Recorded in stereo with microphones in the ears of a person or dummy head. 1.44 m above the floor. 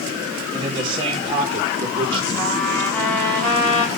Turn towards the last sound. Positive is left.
turn(degrees=10)  # may be behind; listen again after turning